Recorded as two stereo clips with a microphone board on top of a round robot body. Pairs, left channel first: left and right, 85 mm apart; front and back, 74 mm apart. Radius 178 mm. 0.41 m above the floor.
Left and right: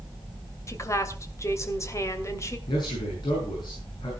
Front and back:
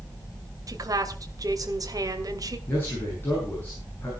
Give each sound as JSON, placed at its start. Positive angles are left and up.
{"t": 0.7, "sound": "a woman speaking", "azimuth_deg": 145, "distance_m": 2.5}
{"t": 2.7, "sound": "a man speaking", "azimuth_deg": 60, "distance_m": 6.5}